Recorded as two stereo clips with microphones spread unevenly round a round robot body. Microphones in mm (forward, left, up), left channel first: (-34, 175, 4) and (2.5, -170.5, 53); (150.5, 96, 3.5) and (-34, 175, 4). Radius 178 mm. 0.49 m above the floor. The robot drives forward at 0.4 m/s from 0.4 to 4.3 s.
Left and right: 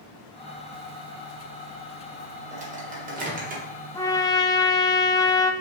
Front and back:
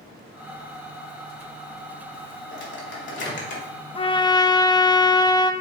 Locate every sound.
2.5 s a microwave: 10° right, 2 m; by 3.6 s 15° right, 1.7 m
4.0 s a trumpet: 25° left, 0.7 m; by 5.5 s 35° left, 0.7 m